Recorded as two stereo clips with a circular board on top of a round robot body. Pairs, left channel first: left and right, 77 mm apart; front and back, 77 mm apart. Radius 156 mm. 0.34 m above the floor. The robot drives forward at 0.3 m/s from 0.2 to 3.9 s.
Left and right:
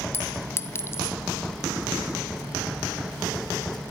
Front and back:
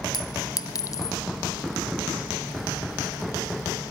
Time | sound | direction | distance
0.1 | a clink | 35° left | 1.7 m